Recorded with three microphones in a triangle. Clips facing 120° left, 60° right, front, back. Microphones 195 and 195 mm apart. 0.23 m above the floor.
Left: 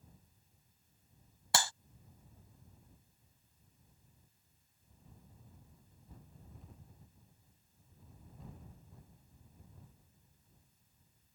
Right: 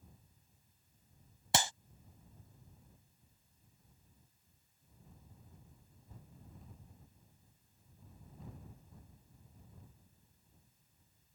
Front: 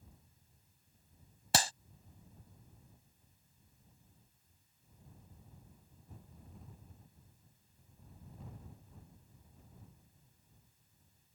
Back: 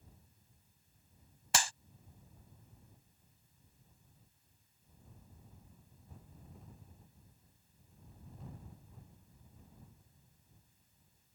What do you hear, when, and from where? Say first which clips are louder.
1.5 s a clap: right 2 dB, front 3 dB; 5° right